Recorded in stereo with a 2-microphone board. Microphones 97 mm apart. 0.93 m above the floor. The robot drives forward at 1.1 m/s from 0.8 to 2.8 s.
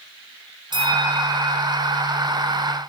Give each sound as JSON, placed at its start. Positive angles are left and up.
{"t": 0.7, "sound": "a bell", "side_deg": -50, "distance_m": 6.5}